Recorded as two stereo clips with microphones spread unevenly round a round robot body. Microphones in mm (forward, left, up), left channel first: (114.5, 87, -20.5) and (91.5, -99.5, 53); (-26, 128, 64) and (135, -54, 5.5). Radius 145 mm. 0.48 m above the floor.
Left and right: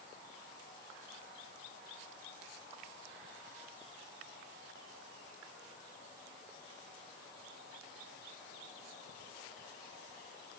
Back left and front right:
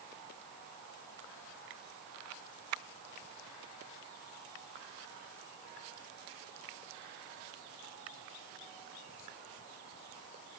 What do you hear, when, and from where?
Only background noise.